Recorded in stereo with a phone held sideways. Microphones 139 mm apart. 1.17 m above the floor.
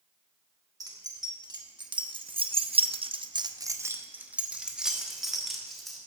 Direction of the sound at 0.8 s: 25° right (ahead or behind).